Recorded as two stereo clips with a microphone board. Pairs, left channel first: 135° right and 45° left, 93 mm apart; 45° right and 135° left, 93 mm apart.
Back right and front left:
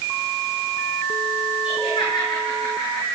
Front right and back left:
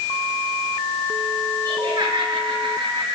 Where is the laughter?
170° right, 6 m; by 3.1 s 170° left, 7 m.